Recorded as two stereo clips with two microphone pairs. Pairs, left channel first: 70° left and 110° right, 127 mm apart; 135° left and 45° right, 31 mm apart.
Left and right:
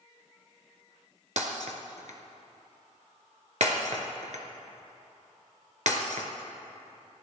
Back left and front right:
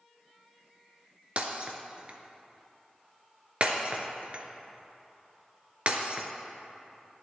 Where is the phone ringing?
No phone ringing in this recording.